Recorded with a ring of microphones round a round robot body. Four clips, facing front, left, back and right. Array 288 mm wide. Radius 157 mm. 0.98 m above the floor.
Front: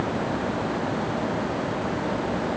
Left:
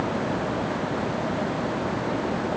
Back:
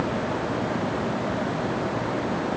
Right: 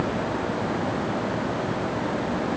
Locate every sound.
Only background noise.